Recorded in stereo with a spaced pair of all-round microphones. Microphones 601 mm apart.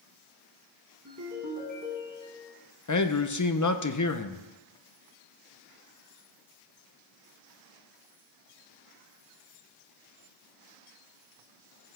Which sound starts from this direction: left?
A man speaking, at 2.9 s.